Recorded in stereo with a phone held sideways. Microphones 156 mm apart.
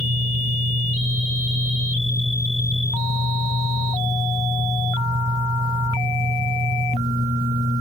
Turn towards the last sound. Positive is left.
turn(degrees=-70)  # may be behind; listen again after turning